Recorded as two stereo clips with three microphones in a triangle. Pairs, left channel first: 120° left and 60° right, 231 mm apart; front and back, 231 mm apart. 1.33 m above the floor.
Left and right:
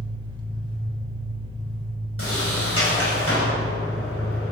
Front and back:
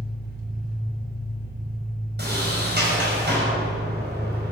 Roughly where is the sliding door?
Behind left.